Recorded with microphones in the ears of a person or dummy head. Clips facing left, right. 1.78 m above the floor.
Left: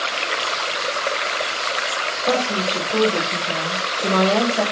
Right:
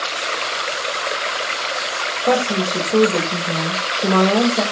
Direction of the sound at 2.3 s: 30° right (ahead or behind).